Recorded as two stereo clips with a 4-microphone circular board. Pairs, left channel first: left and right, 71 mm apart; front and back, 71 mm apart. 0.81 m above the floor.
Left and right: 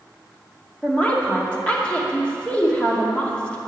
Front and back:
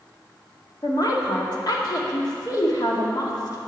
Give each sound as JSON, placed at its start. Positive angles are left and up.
{"t": 0.8, "sound": "a woman speaking", "azimuth_deg": 20, "distance_m": 2.0}